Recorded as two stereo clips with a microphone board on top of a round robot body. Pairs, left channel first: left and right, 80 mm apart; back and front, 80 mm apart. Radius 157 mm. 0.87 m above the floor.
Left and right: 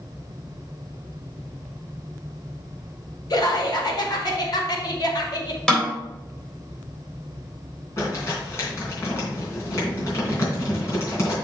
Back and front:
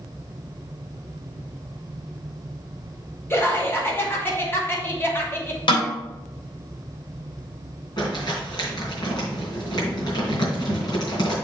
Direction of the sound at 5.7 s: 175° left.